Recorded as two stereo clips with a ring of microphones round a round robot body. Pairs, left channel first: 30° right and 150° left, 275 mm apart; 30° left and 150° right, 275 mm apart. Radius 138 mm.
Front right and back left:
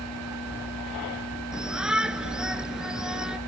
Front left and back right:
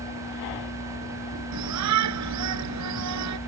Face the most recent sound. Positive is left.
turn(degrees=-120)